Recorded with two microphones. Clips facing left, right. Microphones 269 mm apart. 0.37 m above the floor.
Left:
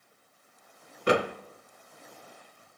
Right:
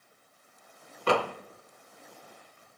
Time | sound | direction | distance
1.1 | a door slam | 20° left (ahead or behind) | 0.6 m